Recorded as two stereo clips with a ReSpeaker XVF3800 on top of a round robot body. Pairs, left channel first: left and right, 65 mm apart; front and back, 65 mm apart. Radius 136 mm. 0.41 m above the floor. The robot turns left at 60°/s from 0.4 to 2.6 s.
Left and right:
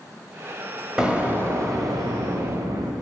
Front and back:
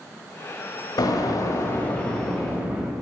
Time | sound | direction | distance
1.0 | an explosion | 10° right | 1.6 m